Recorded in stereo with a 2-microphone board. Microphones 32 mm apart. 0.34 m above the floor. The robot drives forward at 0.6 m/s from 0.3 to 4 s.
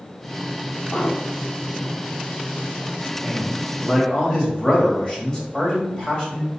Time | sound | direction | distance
0.9 | an explosion | 50° left (ahead or behind) | 1.4 m
3.2 | a man speaking | 25° left (ahead or behind) | 1.5 m